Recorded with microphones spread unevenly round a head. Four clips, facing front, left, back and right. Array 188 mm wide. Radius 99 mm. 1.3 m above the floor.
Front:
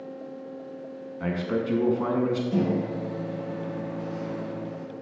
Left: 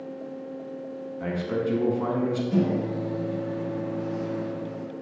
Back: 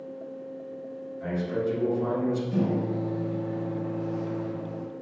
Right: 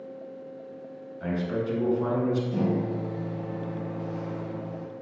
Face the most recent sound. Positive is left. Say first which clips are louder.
# left 2 dB, front 1 dB
turn(degrees=60)